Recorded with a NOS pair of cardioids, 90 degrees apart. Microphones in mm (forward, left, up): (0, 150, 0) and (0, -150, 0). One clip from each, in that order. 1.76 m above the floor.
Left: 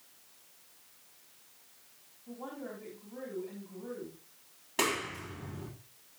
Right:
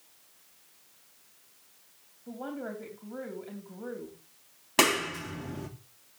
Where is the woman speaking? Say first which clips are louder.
Right 5 dB; 65° right, 3.5 m.